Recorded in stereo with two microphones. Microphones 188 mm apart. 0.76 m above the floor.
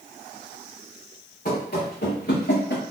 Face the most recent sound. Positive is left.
turn(degrees=65)  # may be behind; listen again after turning